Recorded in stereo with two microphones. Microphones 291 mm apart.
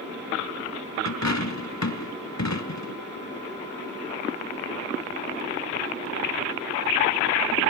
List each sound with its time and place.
1.1 s a dropped coin: 65° left (ahead or behind), 1.0 m